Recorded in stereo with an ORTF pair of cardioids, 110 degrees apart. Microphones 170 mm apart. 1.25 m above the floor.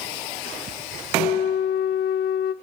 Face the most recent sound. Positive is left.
turn(degrees=70)